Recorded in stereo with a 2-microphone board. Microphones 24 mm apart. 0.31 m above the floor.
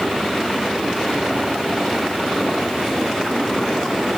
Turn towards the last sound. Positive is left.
No sound to turn to.